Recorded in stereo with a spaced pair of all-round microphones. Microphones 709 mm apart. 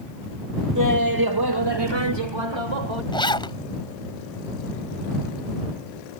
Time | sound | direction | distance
0.8 | laughter | 25° right (ahead or behind) | ?
3.1 | a zipper | 5° left (ahead or behind) | ?